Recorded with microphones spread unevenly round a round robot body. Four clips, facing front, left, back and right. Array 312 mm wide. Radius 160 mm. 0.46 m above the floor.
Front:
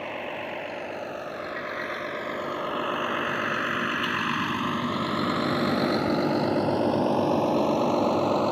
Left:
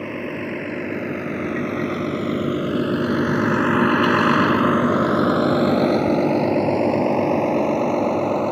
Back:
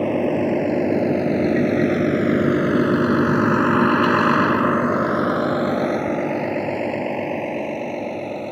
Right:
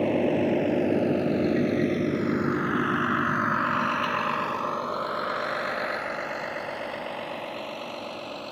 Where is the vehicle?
160° right; by 8.5 s 75° left.